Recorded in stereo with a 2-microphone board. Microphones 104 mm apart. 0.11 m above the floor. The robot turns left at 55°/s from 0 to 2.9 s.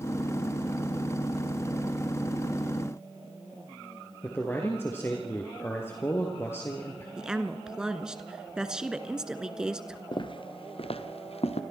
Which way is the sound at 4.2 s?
25° left (ahead or behind).